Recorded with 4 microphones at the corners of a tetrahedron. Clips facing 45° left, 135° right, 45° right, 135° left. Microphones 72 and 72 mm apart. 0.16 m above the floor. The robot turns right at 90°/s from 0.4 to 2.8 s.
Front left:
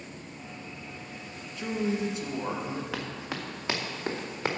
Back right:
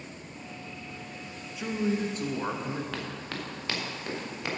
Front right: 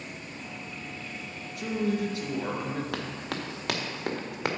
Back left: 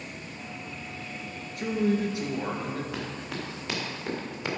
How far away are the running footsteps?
About 2 m.